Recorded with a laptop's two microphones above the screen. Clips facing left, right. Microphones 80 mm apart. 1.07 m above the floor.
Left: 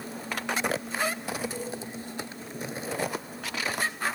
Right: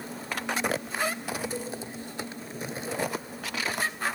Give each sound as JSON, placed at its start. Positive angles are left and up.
{"t": 1.5, "sound": "a cowbell", "side_deg": -30, "distance_m": 2.0}